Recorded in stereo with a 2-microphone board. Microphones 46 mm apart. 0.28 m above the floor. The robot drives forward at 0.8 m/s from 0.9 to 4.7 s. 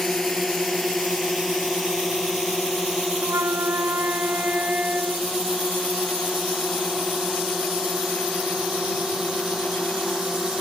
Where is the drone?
5° left (ahead or behind); by 10.6 s 5° right (ahead or behind).